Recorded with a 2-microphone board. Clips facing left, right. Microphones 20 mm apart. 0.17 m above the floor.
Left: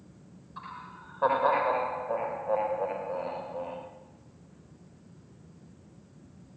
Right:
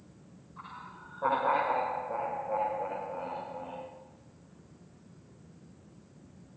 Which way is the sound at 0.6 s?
75° left (ahead or behind).